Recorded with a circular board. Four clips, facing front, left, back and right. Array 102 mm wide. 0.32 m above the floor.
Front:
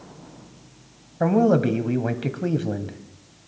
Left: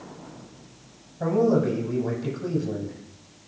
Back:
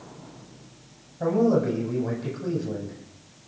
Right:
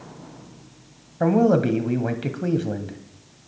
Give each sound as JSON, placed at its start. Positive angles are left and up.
{"t": 1.2, "sound": "a man speaking", "azimuth_deg": -40, "distance_m": 1.5}